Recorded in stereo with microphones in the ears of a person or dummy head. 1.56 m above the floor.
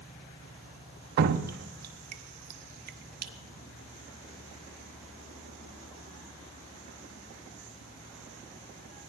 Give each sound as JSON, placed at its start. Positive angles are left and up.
{"t": 1.2, "sound": "dripping", "side_deg": -55, "distance_m": 0.6}